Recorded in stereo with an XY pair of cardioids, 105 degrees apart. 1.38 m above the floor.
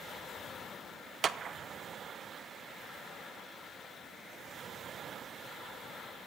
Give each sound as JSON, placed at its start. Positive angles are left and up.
{"t": 1.2, "sound": "a clap", "azimuth_deg": -45, "distance_m": 0.8}